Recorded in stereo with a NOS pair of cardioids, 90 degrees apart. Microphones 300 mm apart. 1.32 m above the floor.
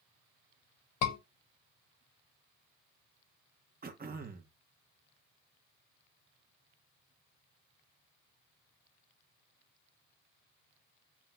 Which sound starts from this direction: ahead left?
A scream, at 1.0 s.